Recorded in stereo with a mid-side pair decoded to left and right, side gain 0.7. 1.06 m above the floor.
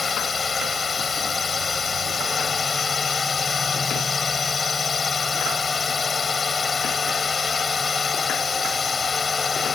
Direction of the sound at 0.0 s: 25° left.